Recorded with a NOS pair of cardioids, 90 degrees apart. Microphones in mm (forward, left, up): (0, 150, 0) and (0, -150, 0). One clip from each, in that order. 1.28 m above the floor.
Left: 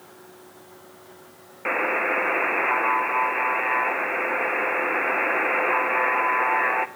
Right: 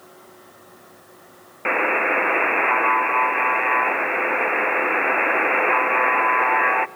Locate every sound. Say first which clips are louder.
1.6 s a buzzer: right 4 dB; 15° right, 0.7 m